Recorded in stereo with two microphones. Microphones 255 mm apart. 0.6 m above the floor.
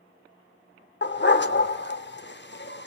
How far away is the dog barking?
About 0.7 m.